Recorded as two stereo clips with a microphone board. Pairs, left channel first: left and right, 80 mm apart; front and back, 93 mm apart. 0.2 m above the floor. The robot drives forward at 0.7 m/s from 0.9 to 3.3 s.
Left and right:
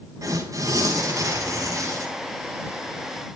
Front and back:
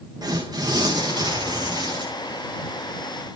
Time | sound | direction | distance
0.2 | tearing paper | 140° right | 9.5 m